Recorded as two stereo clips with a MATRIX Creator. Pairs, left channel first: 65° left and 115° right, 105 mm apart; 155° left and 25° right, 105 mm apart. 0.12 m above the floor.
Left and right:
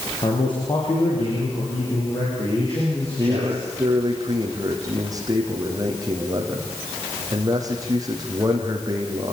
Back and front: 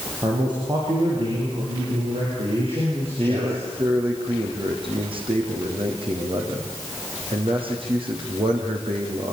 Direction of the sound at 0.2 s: 25° left.